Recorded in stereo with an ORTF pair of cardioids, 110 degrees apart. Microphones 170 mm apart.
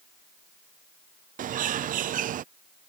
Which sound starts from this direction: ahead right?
A bird, at 1.4 s.